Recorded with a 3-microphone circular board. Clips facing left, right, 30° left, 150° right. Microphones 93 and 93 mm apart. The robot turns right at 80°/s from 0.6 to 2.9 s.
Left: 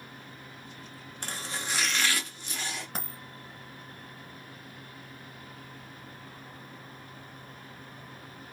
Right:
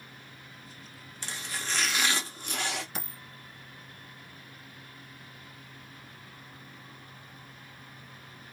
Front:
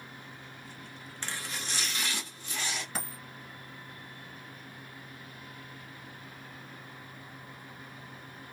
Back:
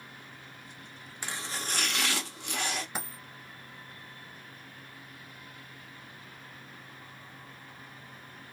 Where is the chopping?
130° left, 0.9 m; by 2.9 s 100° right, 0.9 m.